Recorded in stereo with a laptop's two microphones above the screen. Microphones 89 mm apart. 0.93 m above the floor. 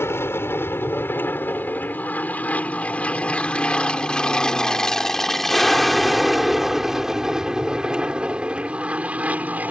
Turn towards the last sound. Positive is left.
turn(degrees=-20)  # may be behind; listen again after turning